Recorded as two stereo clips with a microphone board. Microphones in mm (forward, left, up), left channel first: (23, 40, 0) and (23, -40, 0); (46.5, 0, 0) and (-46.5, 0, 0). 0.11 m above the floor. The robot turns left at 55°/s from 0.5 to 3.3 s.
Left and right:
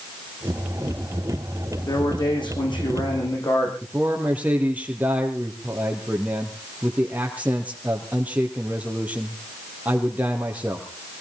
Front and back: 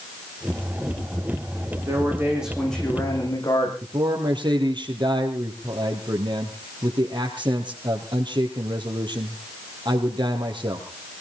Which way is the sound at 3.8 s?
160° right.